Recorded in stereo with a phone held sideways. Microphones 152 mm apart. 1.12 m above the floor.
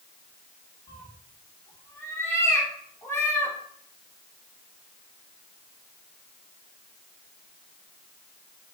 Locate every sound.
0.9 s a cat meowing: 15° left (ahead or behind), 0.8 m